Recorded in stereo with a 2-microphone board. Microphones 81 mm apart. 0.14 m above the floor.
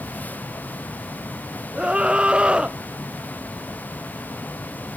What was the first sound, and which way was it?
A scream, 10° right (ahead or behind).